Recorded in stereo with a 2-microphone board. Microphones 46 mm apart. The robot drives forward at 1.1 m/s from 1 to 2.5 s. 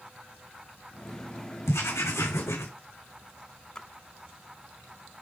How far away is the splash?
About 1.2 m.